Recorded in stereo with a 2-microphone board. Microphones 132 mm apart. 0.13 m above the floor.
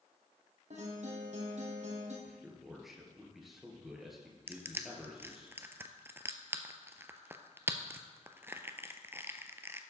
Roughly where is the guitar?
Right.